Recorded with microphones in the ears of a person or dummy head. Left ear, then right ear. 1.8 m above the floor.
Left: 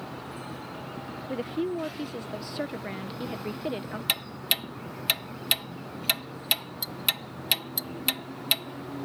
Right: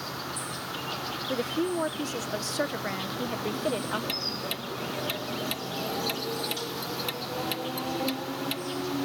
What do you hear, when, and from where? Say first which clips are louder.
0.0 s an insect: right 4 dB; 80° right
1.3 s a woman speaking: right 1 dB; 50° right (ahead or behind)
4.1 s ticking: left 3 dB; 25° left (ahead or behind)